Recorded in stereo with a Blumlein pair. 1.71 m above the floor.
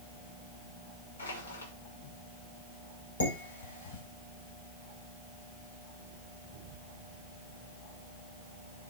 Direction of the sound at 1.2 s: 70° left.